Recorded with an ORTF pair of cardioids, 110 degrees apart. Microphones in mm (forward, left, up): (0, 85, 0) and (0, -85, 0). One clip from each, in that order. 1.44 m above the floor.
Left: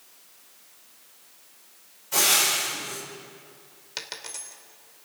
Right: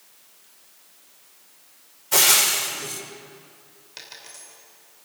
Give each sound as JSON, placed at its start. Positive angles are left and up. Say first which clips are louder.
{"t": 2.1, "sound": "frying", "louder": "right 3 dB", "azimuth_deg": -55, "distance_m": 5.0}
{"t": 4.0, "sound": "a dropped coin", "louder": "left 5 dB", "azimuth_deg": 45, "distance_m": 2.5}